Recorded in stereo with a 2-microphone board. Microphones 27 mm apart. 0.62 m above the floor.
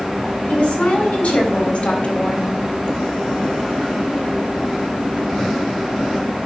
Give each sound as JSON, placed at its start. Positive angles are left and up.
{"t": 0.5, "sound": "a woman speaking", "side_deg": 75, "distance_m": 4.0}